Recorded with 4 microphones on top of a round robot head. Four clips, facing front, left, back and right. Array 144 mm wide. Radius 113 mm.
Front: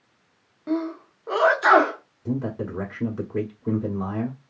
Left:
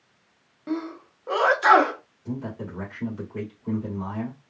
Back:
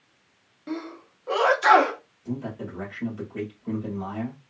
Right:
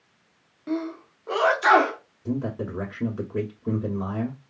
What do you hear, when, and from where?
0.7 s a sneeze: 35° left, 1.0 m
2.2 s a man speaking: 30° right, 1.2 m